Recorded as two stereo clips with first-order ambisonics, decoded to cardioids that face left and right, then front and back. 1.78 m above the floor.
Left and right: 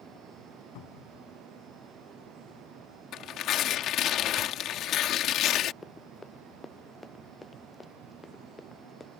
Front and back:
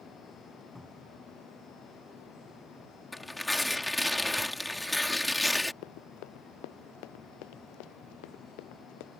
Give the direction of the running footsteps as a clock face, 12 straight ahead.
12 o'clock.